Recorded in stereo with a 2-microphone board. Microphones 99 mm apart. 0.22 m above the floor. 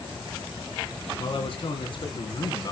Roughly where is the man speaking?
Left.